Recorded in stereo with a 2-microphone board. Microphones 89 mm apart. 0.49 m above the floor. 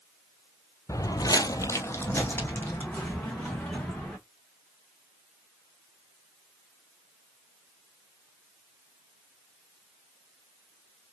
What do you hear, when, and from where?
0.9 s footsteps: 35° left (ahead or behind), 0.7 m; by 4.2 s 10° left (ahead or behind), 3 m